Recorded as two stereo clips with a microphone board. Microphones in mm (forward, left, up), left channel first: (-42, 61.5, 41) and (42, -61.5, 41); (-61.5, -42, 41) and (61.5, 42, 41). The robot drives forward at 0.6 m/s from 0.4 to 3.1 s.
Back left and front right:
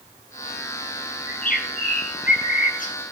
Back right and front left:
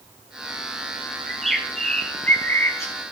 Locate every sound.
1.3 s a bird: 125° left, 1.4 m; by 2.9 s 145° left, 2 m